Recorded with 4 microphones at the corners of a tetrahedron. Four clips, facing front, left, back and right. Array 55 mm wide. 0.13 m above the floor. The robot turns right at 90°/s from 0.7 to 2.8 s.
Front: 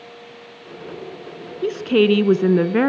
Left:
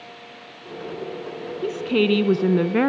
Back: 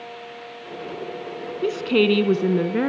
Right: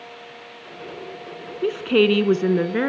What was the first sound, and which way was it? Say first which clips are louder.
A woman speaking: right 3 dB, front 2 dB; 95° right.